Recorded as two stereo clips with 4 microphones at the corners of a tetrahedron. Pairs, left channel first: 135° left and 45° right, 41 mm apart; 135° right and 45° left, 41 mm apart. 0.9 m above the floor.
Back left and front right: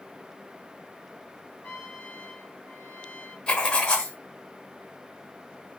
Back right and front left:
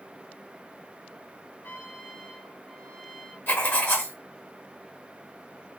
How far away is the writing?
About 1.8 m.